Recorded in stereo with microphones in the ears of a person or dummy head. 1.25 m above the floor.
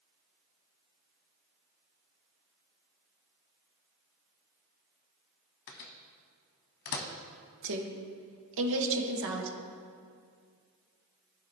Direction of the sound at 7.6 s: 65° right (ahead or behind).